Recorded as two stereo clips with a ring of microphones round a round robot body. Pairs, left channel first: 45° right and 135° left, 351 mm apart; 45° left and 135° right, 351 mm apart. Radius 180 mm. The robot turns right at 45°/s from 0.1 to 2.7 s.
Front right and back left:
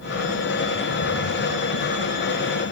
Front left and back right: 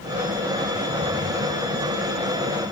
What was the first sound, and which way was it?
Only background noise.